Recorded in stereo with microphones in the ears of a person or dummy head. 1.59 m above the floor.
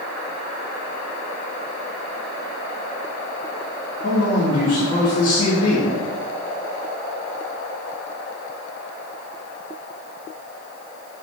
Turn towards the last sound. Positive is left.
turn(degrees=45)  # may be behind; listen again after turning